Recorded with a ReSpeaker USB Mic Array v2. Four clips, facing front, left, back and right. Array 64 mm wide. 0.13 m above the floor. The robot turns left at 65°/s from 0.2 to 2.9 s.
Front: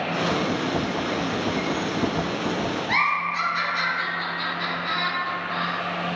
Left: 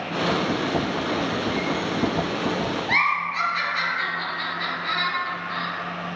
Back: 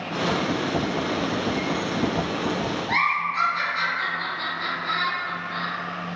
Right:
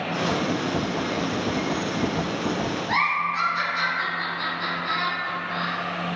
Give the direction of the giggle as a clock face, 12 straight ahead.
10 o'clock.